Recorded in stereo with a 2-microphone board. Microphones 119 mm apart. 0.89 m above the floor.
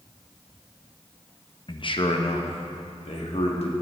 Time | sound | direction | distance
1.7 | a man speaking | 45° left (ahead or behind) | 0.7 m